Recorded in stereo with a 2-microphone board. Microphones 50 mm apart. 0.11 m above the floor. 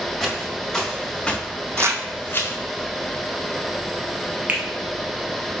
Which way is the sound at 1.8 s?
60° right (ahead or behind).